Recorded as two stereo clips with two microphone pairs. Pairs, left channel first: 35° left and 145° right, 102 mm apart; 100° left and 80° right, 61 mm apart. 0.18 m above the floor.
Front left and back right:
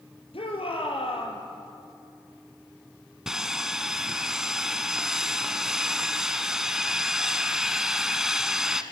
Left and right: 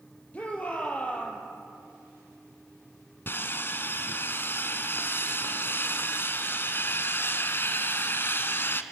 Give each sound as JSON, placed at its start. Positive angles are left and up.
{"t": 0.3, "sound": "a shout", "azimuth_deg": 35, "distance_m": 4.0}
{"t": 3.3, "sound": "sawing", "azimuth_deg": 130, "distance_m": 1.0}